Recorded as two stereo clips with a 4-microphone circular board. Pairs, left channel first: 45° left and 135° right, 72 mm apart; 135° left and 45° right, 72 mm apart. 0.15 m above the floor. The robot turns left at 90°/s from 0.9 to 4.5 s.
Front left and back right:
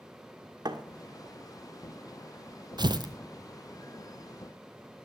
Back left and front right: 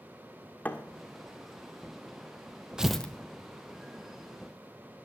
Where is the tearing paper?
125° right, 0.8 m; by 3.1 s 155° right, 0.8 m.